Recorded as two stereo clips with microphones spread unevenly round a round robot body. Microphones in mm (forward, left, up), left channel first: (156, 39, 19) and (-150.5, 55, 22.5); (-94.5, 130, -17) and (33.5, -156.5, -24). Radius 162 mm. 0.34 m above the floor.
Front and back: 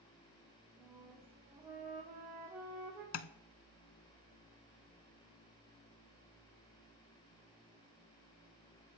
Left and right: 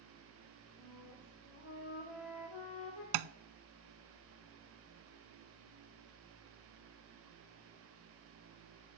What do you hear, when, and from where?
0.8 s a flute: 95° left, 6.5 m
3.1 s tapping: 55° right, 0.5 m